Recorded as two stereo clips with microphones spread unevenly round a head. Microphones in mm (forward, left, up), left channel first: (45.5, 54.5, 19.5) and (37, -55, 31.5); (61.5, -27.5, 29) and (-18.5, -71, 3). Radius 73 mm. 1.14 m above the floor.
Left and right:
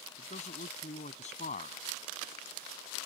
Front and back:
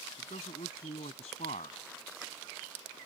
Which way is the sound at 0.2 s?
70° left.